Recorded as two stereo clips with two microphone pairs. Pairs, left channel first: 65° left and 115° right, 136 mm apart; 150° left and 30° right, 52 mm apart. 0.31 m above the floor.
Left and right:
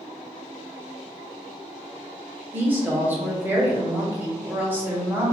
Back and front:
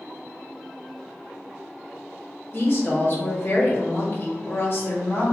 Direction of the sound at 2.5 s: 170° left.